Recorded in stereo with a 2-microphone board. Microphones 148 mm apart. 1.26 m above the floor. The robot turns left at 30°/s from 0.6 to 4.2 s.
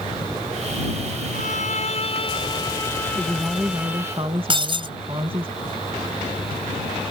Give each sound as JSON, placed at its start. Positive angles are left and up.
{"t": 1.3, "sound": "a violin", "azimuth_deg": 65}
{"t": 3.1, "sound": "a woman speaking", "azimuth_deg": -5}
{"t": 4.5, "sound": "breaking glass", "side_deg": -35}